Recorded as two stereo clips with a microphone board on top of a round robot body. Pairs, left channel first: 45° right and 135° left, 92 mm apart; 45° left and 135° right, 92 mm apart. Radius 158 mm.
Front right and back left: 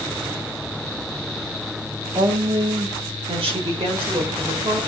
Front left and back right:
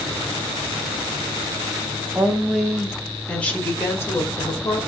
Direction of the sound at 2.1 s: 155° left.